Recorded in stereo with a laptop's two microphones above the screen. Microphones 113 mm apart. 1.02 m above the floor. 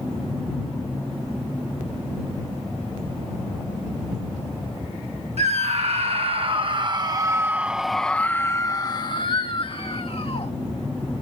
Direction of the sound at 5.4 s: 65° right (ahead or behind).